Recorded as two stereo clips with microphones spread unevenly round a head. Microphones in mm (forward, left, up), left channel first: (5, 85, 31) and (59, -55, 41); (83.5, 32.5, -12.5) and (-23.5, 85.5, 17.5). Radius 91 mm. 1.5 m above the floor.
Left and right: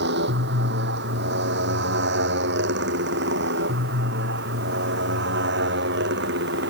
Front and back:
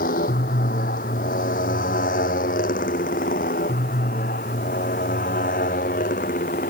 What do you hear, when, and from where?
0.0 s a motorcycle: 65° right; by 6.7 s 70° right